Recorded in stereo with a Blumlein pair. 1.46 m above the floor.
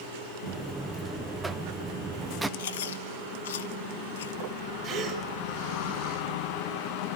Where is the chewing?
60° left, 1.0 m.